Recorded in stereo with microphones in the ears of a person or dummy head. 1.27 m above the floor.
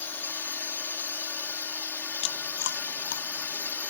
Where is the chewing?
65° left (ahead or behind).